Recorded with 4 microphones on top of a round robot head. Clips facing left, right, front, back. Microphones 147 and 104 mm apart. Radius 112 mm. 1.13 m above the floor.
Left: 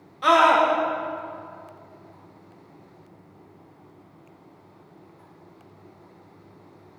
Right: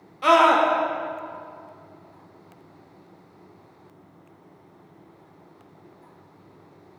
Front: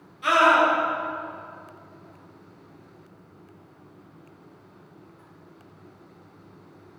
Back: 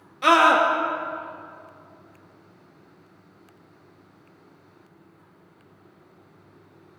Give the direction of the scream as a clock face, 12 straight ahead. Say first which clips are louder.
Right 1 dB, back 2 dB; 6 o'clock.